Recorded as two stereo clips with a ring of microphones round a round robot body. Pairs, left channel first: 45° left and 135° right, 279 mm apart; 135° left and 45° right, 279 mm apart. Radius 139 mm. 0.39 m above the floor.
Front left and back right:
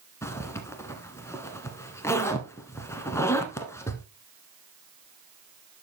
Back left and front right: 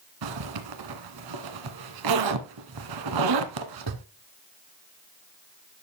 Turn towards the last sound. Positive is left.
turn(degrees=-35)